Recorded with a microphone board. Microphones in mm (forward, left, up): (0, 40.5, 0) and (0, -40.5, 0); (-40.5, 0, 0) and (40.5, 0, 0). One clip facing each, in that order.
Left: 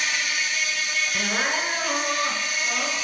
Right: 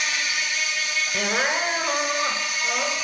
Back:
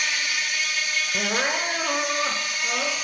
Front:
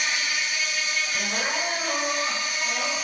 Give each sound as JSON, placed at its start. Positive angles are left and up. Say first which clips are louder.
{"t": 0.0, "sound": "an insect", "louder": "even, even", "azimuth_deg": 55, "distance_m": 1.8}
{"t": 1.1, "sound": "crying", "louder": "right 3 dB, back 5 dB", "azimuth_deg": -160, "distance_m": 0.8}